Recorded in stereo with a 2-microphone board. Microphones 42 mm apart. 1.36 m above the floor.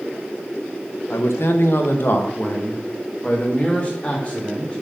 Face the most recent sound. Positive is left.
turn(degrees=25)  # may be behind; listen again after turning